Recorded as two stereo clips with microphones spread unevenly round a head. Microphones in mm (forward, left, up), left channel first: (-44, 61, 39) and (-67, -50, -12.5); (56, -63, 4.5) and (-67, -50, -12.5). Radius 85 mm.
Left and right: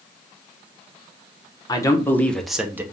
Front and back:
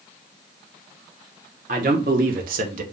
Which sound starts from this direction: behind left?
A man speaking, at 1.7 s.